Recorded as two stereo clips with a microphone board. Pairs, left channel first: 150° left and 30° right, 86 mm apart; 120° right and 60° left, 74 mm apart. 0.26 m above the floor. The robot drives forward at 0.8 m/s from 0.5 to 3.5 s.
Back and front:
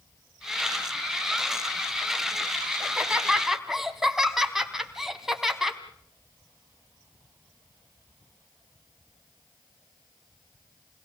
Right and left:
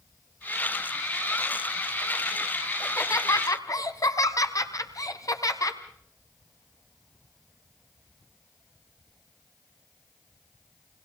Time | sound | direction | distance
2.8 | laughter | 100° right | 2.5 m